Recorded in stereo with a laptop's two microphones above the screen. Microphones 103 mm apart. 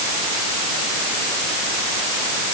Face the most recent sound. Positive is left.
No sound to turn to.